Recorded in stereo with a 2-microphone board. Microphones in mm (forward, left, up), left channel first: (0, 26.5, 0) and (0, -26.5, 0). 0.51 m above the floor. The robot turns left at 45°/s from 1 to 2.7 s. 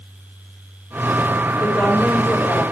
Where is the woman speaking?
140° left, 2.5 m; by 2.6 s 95° left, 2.5 m.